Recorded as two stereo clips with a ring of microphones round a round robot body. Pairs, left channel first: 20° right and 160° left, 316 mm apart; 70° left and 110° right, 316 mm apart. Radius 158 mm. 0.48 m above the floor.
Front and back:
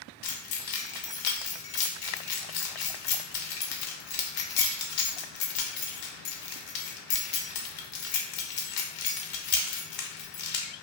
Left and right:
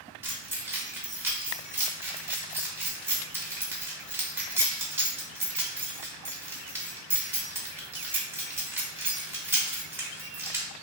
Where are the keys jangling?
30° right, 0.9 m.